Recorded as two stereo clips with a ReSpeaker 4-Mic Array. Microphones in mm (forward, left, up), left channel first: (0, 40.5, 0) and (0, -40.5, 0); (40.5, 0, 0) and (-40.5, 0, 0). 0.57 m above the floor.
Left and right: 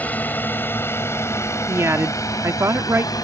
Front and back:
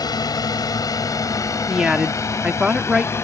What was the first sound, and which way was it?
A drone, 25° left.